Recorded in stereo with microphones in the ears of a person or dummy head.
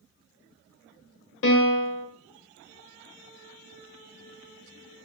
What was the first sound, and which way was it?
A piano, 70° left (ahead or behind).